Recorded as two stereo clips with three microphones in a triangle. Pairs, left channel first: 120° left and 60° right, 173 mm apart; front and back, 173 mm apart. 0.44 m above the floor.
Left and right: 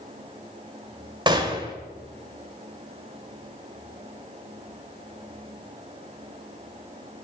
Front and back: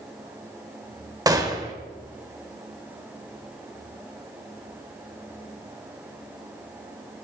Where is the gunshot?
115° right, 1.6 m.